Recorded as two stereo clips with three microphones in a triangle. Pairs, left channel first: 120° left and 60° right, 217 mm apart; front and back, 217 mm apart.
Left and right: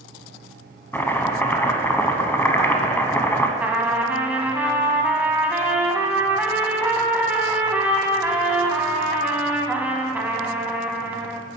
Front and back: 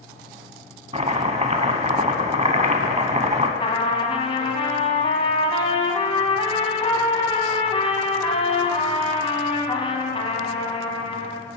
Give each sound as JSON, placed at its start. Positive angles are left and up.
{"t": 0.9, "sound": "chopping", "azimuth_deg": -170, "distance_m": 0.6}
{"t": 3.6, "sound": "a trumpet", "azimuth_deg": 15, "distance_m": 0.8}